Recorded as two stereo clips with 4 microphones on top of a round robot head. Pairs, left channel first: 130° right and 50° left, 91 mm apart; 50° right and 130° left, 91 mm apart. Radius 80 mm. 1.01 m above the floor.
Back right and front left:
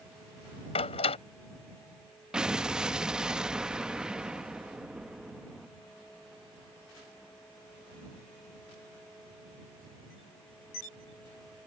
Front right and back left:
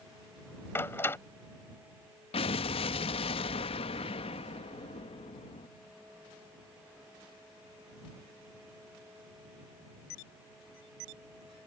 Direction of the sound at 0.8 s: 115° right.